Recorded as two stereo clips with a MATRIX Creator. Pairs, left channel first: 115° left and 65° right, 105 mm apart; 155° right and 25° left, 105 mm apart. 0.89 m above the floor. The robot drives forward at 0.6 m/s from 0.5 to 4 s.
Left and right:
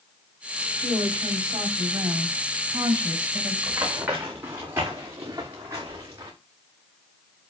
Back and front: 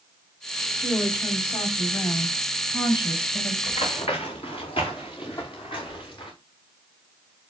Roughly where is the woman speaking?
Right.